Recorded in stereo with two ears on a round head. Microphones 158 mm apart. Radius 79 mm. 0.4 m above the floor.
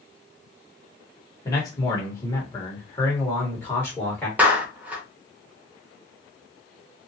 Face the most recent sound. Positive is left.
turn(degrees=-10)  # may be behind; listen again after turning